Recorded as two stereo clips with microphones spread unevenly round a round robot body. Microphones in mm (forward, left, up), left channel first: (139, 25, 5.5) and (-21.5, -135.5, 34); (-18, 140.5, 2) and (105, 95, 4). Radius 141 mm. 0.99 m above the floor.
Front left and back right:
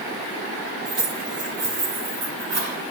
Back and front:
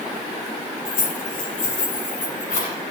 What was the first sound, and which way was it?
Keys jangling, 165° left.